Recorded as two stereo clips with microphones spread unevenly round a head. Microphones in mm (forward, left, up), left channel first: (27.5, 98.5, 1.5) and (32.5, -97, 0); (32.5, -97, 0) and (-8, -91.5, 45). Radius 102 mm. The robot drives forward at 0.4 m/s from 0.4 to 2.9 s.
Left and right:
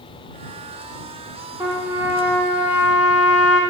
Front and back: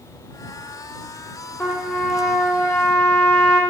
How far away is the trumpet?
About 0.9 m.